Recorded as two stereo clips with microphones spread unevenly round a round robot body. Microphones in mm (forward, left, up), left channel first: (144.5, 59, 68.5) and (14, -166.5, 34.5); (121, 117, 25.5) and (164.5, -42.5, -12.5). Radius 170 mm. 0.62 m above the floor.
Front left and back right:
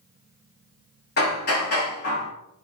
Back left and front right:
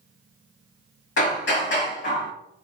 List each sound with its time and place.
1.2 s hammering: 120° left, 4 m